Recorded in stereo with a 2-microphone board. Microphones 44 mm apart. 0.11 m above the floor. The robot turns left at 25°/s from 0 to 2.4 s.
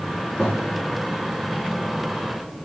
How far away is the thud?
About 4 m.